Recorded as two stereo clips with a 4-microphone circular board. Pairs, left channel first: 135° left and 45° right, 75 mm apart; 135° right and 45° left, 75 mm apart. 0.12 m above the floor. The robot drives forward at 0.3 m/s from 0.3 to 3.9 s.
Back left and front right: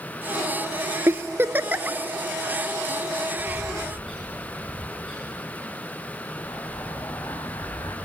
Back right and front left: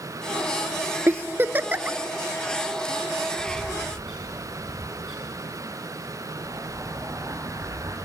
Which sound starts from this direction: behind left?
A bird, at 3.4 s.